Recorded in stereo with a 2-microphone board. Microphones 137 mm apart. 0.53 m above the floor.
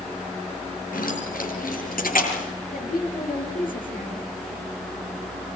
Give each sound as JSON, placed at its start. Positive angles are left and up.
{"t": 0.9, "sound": "keys jangling", "side_deg": 85, "distance_m": 6.5}
{"t": 2.7, "sound": "a woman speaking", "side_deg": 75, "distance_m": 9.5}